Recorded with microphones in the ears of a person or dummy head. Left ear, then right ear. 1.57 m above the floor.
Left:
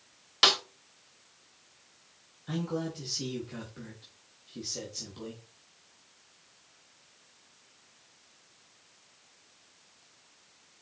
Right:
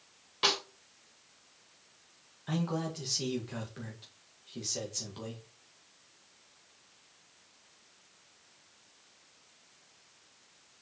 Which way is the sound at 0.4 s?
35° left (ahead or behind).